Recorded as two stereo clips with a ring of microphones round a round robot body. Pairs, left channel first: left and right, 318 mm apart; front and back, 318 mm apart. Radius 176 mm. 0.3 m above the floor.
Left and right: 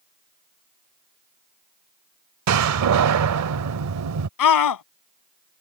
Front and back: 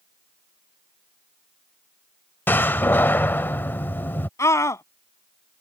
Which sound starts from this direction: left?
A scream, at 4.4 s.